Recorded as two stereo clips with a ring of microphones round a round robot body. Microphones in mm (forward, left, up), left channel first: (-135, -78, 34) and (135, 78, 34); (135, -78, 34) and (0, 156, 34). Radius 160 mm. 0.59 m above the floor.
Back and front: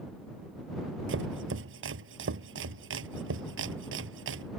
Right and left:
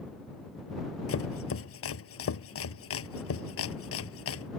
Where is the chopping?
25° right.